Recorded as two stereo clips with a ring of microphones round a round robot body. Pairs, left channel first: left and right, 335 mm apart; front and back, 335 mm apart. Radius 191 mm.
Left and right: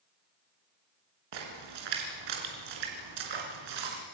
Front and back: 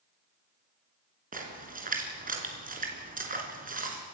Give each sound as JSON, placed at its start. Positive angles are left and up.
{"t": 1.3, "sound": "a splash", "azimuth_deg": -115, "distance_m": 3.5}